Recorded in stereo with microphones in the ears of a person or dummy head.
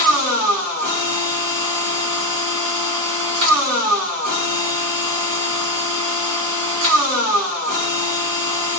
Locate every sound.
0.0 s a machine running: 75° right (ahead or behind), 1.2 m